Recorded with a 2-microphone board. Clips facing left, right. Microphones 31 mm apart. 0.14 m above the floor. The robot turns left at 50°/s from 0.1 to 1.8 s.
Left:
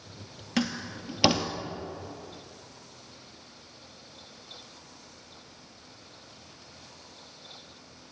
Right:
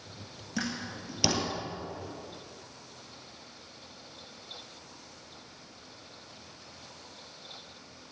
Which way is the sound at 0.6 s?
60° left (ahead or behind).